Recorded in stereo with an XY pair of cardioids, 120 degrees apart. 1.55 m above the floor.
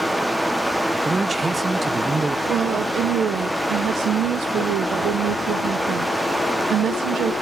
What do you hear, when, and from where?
0.0 s running water: 5° right, 1.0 m
1.1 s a man speaking: 25° right, 0.6 m
2.5 s a woman speaking: 60° right, 1.4 m